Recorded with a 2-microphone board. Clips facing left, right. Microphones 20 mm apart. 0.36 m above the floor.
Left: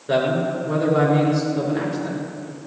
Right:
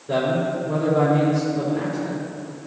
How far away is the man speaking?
About 5.5 m.